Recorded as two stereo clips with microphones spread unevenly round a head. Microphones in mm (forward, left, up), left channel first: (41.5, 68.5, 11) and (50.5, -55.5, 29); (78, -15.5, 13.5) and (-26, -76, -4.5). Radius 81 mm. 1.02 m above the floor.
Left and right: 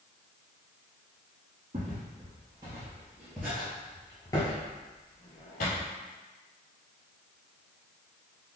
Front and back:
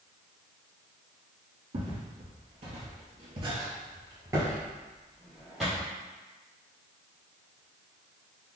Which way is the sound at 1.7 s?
120° right.